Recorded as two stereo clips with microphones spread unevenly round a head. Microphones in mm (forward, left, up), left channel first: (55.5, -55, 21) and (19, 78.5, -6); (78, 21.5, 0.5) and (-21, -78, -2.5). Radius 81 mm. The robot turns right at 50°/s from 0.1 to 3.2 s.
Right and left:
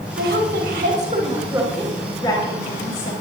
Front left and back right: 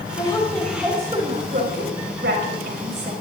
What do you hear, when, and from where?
0.2 s a woman speaking: 110° left, 5.5 m; by 3.1 s 100° right, 5.5 m